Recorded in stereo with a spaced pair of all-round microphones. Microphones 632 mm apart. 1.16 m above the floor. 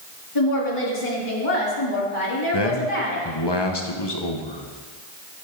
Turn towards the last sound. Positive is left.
turn(degrees=40)  # may be behind; listen again after turning